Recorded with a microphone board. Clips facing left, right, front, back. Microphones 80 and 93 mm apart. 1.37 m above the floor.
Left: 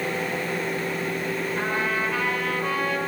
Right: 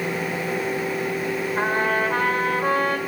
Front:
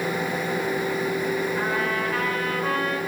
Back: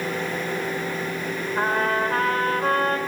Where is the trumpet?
140° right, 3 m.